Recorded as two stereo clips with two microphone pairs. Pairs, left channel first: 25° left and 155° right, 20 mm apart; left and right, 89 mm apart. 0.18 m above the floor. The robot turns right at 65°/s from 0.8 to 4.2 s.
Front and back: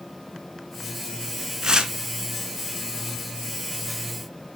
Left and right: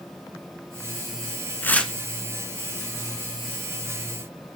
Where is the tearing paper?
155° left, 1.2 m; by 1.9 s 170° left, 1.2 m.